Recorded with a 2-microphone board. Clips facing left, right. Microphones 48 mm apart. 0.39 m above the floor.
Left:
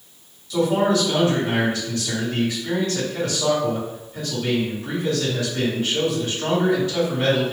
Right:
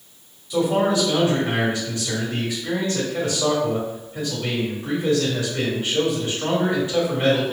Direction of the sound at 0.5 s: 25° right (ahead or behind).